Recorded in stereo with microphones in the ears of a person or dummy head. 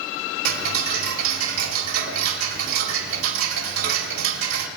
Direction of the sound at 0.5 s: 85° right.